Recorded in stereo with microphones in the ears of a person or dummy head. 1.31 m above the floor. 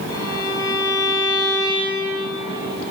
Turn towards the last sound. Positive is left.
turn(degrees=25)  # may be behind; listen again after turning